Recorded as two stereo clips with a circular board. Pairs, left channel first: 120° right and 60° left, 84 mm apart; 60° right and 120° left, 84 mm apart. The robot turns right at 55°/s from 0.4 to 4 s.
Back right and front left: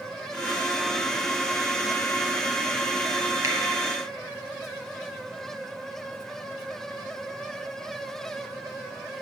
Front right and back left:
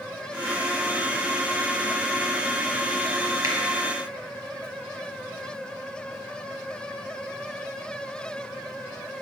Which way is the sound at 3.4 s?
90° left.